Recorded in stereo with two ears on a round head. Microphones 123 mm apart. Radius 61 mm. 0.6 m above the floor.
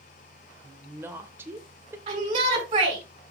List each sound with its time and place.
0.6 s a woman speaking: 15° right (ahead or behind), 2 m
2.1 s a shout: 35° right (ahead or behind), 6 m